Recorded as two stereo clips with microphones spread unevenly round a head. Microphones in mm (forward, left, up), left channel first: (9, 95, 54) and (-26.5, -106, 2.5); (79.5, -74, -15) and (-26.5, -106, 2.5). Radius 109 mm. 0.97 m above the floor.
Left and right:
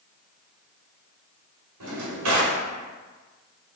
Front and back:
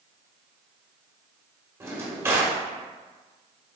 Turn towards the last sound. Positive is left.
turn(degrees=-100)